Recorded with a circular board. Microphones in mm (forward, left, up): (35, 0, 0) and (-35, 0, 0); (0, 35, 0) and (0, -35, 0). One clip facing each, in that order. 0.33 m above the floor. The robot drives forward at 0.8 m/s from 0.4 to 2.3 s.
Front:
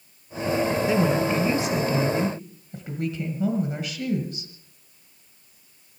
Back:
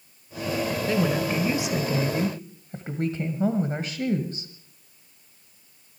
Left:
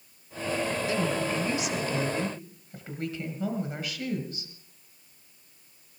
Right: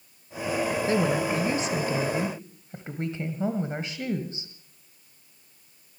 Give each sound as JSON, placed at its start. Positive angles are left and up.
{"t": 0.9, "sound": "a woman speaking", "azimuth_deg": -70, "distance_m": 1.2}